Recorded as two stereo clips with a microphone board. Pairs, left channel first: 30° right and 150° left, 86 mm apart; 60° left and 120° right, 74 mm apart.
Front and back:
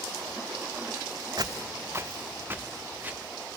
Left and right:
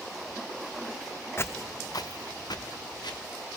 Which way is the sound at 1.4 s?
120° left.